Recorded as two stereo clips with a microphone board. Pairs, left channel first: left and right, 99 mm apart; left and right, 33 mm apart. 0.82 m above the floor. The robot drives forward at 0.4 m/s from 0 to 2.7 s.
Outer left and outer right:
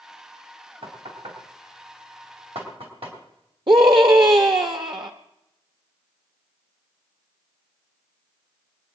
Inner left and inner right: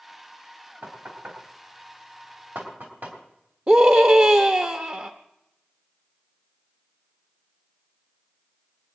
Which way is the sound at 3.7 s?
55° right (ahead or behind).